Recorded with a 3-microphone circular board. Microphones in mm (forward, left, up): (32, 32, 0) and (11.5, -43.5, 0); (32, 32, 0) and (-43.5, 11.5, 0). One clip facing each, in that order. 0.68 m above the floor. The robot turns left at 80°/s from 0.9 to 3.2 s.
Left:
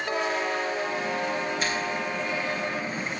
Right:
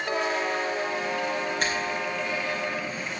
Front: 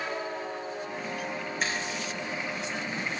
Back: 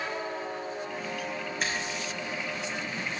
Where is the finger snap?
75° right, 3 m; by 1.8 s 85° right, 3 m.